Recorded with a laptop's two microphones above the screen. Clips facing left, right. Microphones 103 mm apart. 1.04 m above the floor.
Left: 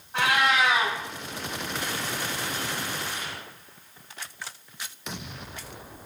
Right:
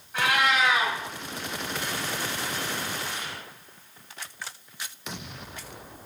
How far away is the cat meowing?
About 1.2 m.